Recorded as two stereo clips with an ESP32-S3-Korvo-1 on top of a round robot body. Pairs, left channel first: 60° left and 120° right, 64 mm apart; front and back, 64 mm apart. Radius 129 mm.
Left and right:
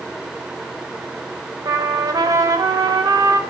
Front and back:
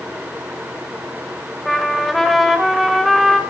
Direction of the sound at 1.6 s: 90° right.